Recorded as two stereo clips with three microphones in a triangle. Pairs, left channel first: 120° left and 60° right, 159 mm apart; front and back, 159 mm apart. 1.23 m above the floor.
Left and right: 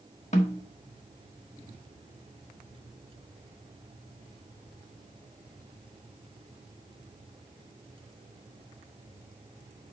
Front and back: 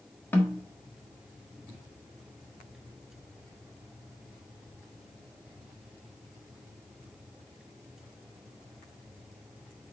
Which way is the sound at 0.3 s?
75° left.